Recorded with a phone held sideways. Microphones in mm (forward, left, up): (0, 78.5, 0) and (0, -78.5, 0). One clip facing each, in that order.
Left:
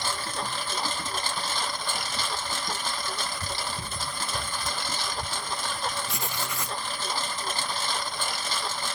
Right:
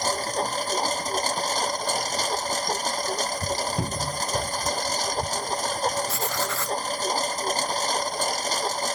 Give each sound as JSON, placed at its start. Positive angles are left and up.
{"t": 0.0, "sound": "a lawn mower", "side_deg": -40}
{"t": 3.8, "sound": "a cupboard door", "side_deg": -70}
{"t": 6.1, "sound": "writing", "side_deg": 15}